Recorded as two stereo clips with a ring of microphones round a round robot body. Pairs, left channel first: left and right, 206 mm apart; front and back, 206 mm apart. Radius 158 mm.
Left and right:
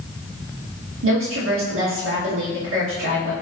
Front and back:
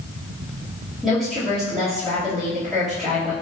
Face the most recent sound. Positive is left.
turn(degrees=-90)